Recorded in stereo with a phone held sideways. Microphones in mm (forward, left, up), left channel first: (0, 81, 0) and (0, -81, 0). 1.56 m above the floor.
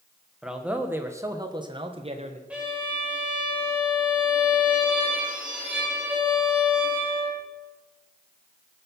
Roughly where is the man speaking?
Centre.